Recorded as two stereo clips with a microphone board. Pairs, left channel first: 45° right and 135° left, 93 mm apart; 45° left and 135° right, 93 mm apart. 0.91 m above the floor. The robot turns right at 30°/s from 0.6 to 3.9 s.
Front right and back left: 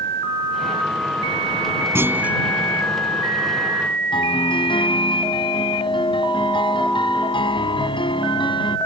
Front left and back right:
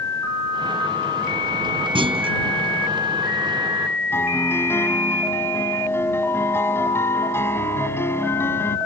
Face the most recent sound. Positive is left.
turn(degrees=-20)